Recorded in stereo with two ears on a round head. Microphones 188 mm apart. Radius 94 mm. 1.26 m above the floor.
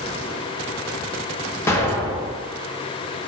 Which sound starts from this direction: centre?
An explosion, at 1.7 s.